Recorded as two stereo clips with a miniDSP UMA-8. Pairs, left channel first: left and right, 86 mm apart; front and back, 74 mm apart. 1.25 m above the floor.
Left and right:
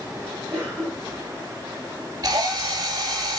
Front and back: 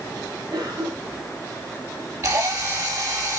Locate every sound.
0.5 s a cough: 150° right, 4.5 m
2.2 s a drill: 135° right, 5.5 m